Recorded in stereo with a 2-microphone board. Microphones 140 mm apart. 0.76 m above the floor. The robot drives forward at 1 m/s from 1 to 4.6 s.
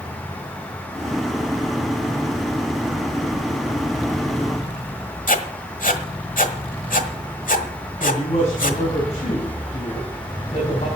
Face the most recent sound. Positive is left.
turn(degrees=50)  # may be behind; listen again after turning